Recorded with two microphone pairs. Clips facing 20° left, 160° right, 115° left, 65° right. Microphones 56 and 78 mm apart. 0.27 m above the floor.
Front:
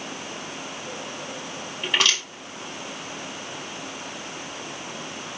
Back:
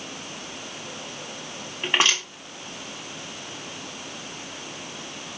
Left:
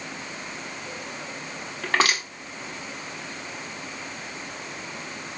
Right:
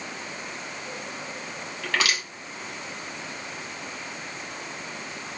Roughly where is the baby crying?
I don't hear a baby crying.